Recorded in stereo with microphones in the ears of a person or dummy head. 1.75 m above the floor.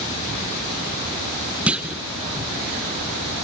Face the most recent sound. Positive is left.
turn(degrees=-5)  # may be behind; listen again after turning